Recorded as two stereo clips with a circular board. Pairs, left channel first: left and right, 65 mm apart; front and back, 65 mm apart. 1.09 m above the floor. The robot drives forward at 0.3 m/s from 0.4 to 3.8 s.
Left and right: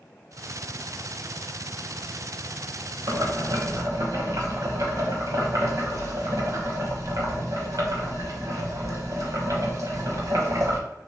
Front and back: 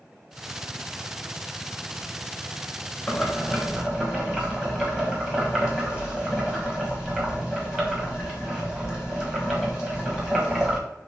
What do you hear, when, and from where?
3.1 s boiling: 90° right, 1.0 m; by 10.8 s 105° right, 1.0 m